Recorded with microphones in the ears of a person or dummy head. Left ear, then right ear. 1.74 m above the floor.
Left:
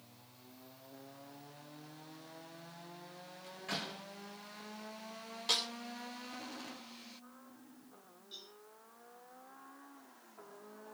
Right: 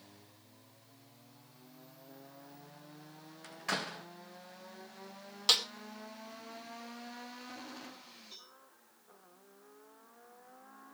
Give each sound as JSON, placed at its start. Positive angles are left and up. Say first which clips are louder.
{"t": 3.4, "sound": "a door slam", "louder": "right 5 dB", "side_deg": -40, "distance_m": 1.5}
{"t": 5.5, "sound": "a snare drum", "louder": "right 5 dB", "side_deg": -40, "distance_m": 2.5}
{"t": 8.3, "sound": "a cowbell", "louder": "left 5 dB", "side_deg": -35, "distance_m": 5.0}